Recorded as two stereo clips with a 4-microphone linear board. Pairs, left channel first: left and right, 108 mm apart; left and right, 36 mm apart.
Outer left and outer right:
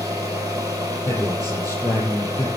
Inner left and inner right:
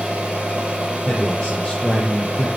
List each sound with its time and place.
0.0 s an engine running: 30° right (ahead or behind), 4 m
1.1 s a man speaking: 25° left (ahead or behind), 8 m